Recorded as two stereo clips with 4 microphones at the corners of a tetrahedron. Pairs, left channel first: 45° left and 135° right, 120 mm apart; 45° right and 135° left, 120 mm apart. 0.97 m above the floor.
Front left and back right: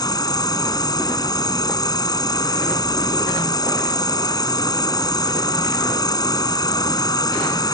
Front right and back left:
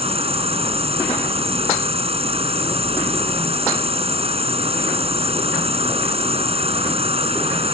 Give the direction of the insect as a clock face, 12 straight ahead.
9 o'clock.